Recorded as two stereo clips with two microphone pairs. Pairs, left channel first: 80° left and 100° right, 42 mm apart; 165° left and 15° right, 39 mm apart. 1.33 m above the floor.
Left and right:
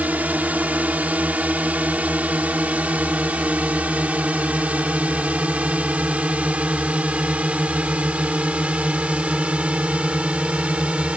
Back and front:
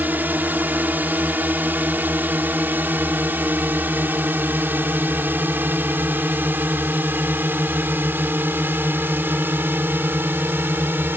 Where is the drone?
50° right; by 11.2 s 40° right.